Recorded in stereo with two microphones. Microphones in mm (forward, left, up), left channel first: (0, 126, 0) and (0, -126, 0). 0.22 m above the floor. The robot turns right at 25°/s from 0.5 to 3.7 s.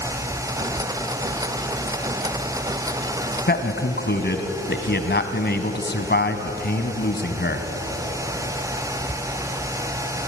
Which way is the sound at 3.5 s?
40° left (ahead or behind).